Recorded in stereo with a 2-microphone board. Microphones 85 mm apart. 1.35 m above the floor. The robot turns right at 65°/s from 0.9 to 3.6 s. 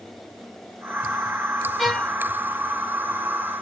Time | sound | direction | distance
1.8 | a violin | centre (ahead or behind) | 0.9 m